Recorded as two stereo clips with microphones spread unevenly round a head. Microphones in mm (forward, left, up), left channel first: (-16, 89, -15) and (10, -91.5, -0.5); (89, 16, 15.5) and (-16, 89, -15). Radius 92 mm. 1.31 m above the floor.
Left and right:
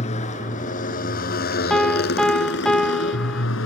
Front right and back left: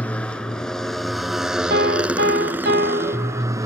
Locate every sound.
0.0 s a motorcycle: 40° left; by 3.7 s 75° left
1.7 s a piano: 175° right